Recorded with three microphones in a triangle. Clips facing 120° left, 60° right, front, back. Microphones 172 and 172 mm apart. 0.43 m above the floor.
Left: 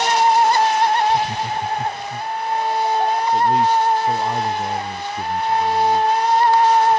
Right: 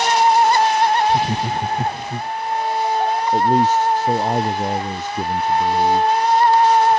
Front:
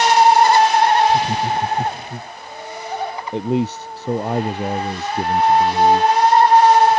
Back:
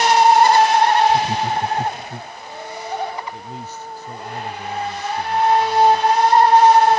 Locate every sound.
1.1 s laughter: 80° right
3.3 s a man speaking: 15° right